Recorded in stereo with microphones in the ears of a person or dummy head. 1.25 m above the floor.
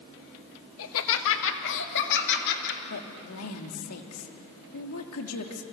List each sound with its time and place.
0.8 s laughter: 75° left (ahead or behind), 1.8 m; by 2.8 s 60° left (ahead or behind), 4 m
2.9 s a woman speaking: 85° left, 2.5 m